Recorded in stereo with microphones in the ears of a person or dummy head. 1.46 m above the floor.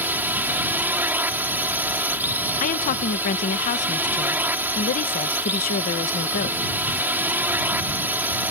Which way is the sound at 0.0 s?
10° right (ahead or behind).